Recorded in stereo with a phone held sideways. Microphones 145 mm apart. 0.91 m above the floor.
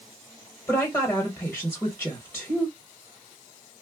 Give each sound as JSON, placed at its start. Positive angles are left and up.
{"t": 0.7, "sound": "a woman speaking", "side_deg": 10, "distance_m": 0.9}